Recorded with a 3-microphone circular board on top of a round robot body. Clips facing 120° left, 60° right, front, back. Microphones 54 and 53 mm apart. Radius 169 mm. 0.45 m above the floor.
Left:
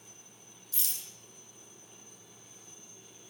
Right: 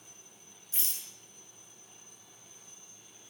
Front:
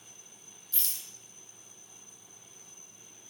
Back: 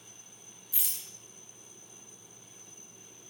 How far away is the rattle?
About 1.8 m.